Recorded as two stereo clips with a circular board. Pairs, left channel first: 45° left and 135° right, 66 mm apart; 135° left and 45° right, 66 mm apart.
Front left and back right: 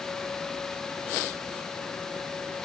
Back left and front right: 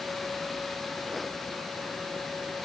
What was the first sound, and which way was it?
Only background noise.